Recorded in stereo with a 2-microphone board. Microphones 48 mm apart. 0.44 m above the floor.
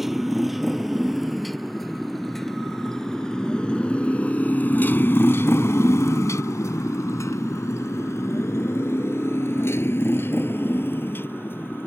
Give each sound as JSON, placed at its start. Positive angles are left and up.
{"t": 0.0, "sound": "a motorcycle", "side_deg": -5}